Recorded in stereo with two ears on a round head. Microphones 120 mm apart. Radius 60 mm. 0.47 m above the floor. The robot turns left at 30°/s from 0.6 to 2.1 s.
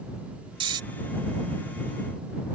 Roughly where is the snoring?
Right.